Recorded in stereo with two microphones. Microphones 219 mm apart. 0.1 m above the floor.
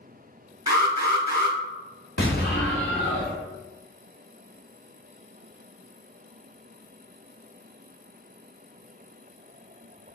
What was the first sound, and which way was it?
An alarm, 15° right (ahead or behind).